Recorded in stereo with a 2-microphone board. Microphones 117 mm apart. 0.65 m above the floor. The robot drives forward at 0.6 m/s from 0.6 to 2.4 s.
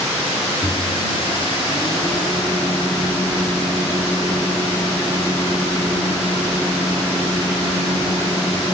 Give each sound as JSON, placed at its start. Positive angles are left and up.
{"t": 0.6, "sound": "a microwave", "side_deg": 35, "distance_m": 5.5}